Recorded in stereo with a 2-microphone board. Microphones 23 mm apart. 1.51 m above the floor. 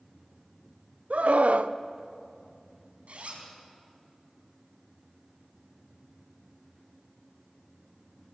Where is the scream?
75° right (ahead or behind), 0.8 m.